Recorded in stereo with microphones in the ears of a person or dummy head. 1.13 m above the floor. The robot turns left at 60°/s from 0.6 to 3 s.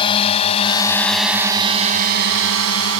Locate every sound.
0.0 s a drone: 30° left (ahead or behind); by 3.0 s 75° right (ahead or behind)